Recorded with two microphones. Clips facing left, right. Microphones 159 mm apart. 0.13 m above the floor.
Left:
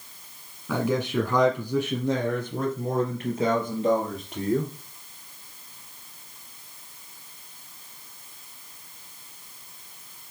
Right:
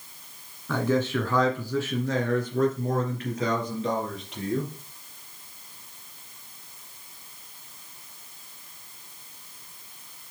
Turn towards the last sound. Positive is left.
turn(degrees=30)  # may be behind; listen again after turning